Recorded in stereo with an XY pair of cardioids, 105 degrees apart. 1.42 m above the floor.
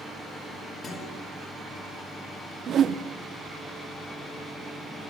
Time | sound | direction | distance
0.8 | a guitar | 60° left | 10 m
2.7 | a whoosh | 55° right | 1.2 m